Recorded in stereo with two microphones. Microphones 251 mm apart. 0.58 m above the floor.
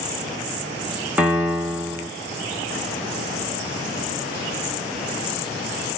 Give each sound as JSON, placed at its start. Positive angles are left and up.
{"t": 1.2, "sound": "a piano", "side_deg": -5, "distance_m": 0.6}